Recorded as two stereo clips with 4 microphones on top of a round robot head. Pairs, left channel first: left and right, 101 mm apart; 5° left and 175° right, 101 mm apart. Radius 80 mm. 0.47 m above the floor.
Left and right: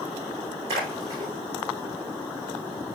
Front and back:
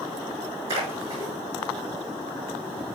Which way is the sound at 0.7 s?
125° right.